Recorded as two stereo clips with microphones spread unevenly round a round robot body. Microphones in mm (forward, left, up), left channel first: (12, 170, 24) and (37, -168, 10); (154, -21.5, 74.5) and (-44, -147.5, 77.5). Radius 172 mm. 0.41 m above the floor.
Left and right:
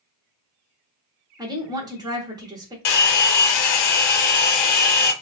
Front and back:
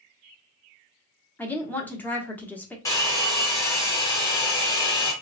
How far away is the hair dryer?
About 0.6 m.